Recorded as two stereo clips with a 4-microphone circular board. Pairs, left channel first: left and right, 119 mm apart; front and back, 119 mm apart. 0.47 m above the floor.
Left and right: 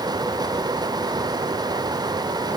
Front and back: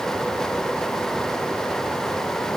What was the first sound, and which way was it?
Only background noise.